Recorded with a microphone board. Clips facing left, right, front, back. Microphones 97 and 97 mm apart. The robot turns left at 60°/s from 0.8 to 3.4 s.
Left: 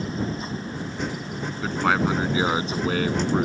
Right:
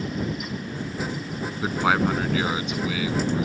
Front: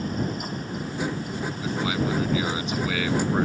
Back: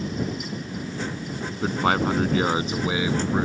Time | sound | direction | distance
1.6 | a man speaking | 160° right | ?